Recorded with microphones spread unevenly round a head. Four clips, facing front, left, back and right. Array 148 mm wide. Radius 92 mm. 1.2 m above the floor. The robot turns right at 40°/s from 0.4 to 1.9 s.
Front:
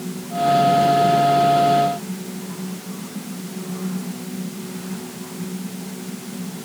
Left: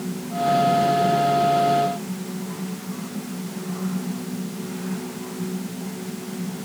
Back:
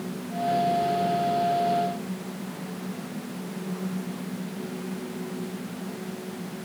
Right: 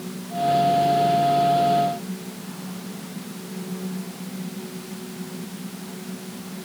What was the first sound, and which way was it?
Only background noise.